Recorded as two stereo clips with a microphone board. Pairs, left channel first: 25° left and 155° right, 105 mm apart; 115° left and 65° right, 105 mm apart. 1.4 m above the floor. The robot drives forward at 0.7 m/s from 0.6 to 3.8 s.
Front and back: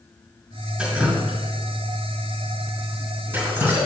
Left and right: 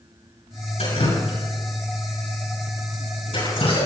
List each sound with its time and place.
0.8 s dripping: 120° left, 6.5 m; by 3.9 s 135° left, 7.5 m